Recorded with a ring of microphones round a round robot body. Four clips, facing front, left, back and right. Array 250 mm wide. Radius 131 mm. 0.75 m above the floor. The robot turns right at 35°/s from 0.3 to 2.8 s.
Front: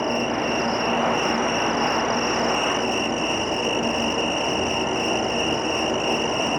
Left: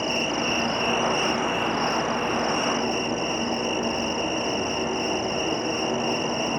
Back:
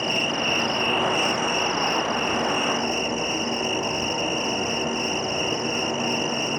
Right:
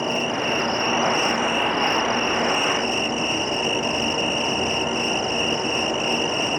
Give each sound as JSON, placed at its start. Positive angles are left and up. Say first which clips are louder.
{"t": 0.0, "sound": "an insect", "louder": "right 2 dB, front 3 dB", "azimuth_deg": -170, "distance_m": 1.2}